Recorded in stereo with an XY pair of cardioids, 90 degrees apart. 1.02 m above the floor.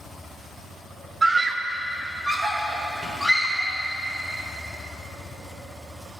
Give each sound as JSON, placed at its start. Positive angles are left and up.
{"t": 1.2, "sound": "a scream", "azimuth_deg": -35, "distance_m": 0.7}